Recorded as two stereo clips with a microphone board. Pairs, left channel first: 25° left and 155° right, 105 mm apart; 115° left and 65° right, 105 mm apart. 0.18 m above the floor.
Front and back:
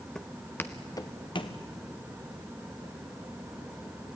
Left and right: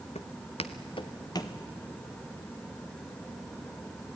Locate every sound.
0.1 s footsteps: 110° left, 1.6 m; by 1.6 s 55° left, 1.6 m